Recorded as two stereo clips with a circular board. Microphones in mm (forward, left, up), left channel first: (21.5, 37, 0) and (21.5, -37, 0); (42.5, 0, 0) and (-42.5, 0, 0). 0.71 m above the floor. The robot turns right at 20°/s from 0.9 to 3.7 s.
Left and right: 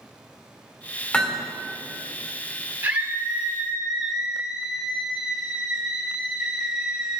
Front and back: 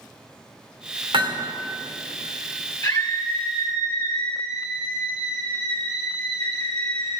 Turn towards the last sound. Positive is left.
turn(degrees=-10)